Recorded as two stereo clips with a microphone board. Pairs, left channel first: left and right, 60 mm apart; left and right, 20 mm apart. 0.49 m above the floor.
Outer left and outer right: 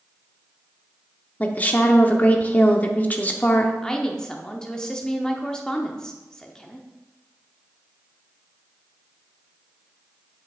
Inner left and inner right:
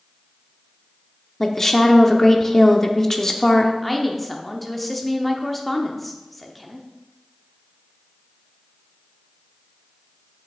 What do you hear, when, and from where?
1.4 s a woman speaking: 25° left (ahead or behind), 0.7 m
3.8 s a woman speaking: 10° left (ahead or behind), 0.8 m